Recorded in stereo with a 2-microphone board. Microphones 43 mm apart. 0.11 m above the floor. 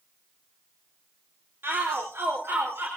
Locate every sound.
1.6 s a shout: 70° right (ahead or behind), 3.5 m; by 2.9 s 75° right (ahead or behind), 5.5 m